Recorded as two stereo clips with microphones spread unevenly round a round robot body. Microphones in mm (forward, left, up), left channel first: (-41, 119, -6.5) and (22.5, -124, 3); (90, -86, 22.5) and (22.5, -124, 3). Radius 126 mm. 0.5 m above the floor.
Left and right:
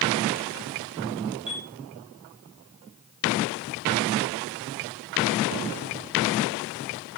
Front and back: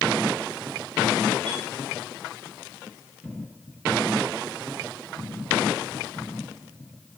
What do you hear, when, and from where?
1.5 s a chime: 140° right, 6.5 m